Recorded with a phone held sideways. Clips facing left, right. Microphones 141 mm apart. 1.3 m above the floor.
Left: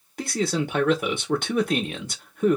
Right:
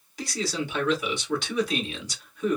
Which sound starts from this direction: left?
A man speaking, at 0.2 s.